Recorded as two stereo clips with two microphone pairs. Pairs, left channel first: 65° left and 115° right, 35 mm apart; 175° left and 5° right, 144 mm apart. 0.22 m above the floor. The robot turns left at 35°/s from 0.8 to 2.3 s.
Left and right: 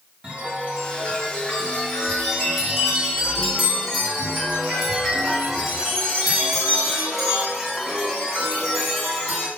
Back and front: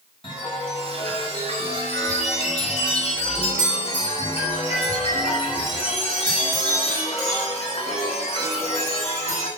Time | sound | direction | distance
0.2 | a chime | 150° right | 2 m